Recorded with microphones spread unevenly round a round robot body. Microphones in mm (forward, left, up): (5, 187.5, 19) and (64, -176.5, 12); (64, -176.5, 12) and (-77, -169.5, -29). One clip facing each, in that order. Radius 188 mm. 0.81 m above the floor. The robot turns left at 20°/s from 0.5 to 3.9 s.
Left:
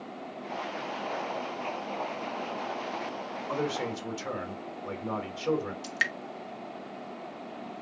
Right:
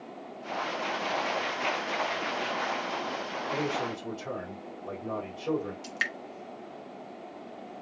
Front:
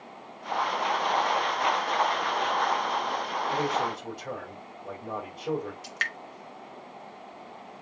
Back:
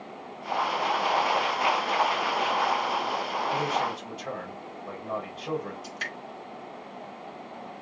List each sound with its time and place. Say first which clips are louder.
3.5 s a man speaking: left 1 dB, front 1 dB; 65° left, 3 m; by 5.7 s 60° left, 3 m
5.8 s dripping: left 2 dB, back 1 dB; 15° left, 0.8 m